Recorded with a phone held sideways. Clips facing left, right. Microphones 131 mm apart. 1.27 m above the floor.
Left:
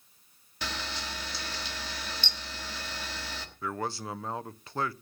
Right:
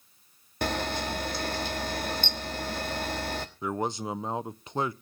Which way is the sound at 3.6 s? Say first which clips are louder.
Right 3 dB; 20° right (ahead or behind).